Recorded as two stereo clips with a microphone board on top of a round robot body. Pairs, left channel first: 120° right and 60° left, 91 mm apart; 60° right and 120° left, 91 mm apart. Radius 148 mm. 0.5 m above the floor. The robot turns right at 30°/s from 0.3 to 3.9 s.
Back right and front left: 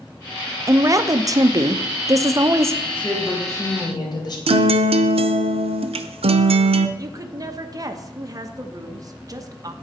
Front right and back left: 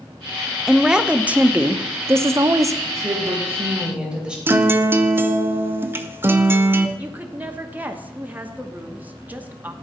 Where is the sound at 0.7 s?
35° left, 0.9 m; by 2.8 s 100° left, 0.9 m.